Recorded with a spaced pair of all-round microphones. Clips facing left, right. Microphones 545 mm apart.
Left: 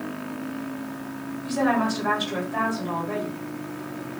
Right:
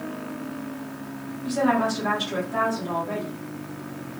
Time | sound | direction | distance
1.4 | a woman speaking | 55° right (ahead or behind) | 1.5 m